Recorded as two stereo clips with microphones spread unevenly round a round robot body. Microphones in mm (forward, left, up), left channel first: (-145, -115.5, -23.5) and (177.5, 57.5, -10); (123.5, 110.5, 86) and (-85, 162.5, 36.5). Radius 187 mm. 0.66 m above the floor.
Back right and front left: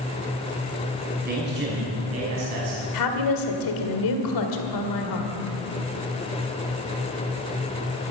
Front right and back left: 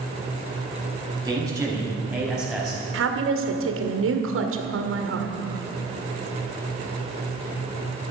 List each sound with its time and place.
1.2 s a man speaking: 95° left, 5 m; by 2.8 s 75° left, 5 m
2.9 s a woman speaking: 170° left, 1.8 m